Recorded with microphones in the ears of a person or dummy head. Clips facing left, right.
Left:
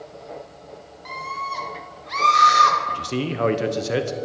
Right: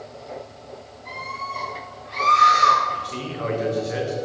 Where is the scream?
85° left, 3.5 m; by 2.8 s 75° left (ahead or behind), 2.5 m.